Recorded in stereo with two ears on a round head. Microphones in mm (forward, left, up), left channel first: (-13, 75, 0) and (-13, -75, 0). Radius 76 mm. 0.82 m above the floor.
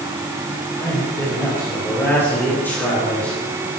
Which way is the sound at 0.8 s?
15° left (ahead or behind).